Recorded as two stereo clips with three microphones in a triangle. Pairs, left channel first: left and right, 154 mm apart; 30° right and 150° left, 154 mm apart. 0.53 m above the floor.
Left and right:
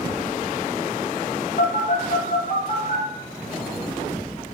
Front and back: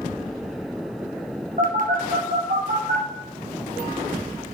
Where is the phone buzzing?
125° left, 1.8 m.